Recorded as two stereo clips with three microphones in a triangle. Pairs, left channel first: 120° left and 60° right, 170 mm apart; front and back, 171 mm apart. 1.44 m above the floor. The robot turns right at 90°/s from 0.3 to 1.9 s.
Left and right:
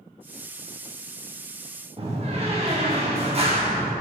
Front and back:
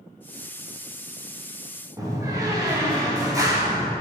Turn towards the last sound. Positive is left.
turn(degrees=-110)